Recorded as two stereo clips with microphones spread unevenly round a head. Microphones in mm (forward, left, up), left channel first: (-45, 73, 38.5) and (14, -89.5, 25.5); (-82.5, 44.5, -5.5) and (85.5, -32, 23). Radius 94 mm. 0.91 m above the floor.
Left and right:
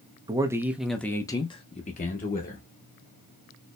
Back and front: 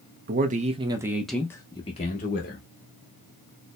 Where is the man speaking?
25° right, 0.8 m; by 2.7 s 140° left, 1.1 m.